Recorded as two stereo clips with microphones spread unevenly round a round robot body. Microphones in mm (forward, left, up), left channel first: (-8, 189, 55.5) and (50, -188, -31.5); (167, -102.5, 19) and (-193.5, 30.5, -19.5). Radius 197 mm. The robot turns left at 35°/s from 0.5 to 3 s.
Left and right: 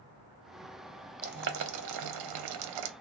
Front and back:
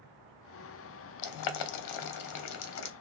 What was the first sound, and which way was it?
Boiling, 10° right.